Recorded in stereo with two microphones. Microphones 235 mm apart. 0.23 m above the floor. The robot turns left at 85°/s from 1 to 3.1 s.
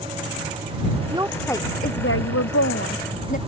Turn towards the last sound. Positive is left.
turn(degrees=35)